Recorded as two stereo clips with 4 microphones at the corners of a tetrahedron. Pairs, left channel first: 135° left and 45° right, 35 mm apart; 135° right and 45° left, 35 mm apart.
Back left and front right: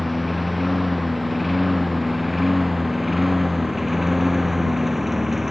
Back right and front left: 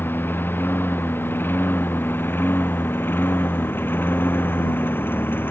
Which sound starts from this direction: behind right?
A lawn mower, at 0.0 s.